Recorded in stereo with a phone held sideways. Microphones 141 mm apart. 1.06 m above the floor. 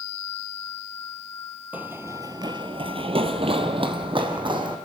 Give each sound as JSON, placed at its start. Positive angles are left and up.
{"t": 1.7, "sound": "running footsteps", "side_deg": -10, "distance_m": 1.5}